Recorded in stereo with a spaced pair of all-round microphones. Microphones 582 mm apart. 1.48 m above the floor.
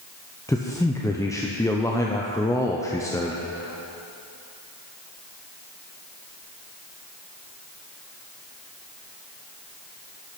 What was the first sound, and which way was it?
A man speaking, 5° left (ahead or behind).